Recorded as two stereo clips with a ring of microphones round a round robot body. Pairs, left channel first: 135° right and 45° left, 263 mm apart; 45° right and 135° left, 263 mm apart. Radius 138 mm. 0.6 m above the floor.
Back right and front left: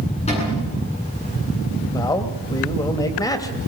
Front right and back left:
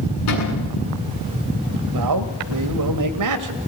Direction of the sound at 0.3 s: 65° right.